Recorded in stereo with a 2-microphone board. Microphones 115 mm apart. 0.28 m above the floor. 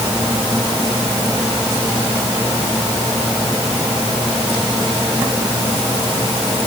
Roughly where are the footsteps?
I don't hear footsteps.